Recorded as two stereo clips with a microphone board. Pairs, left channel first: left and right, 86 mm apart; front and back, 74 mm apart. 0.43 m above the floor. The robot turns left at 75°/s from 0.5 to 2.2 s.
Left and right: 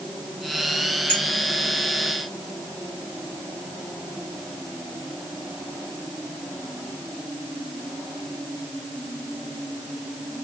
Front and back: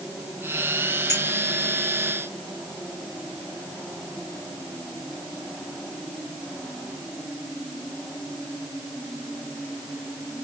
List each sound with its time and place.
1.1 s a clink: 20° left, 2.5 m; by 1.2 s 10° left, 2.5 m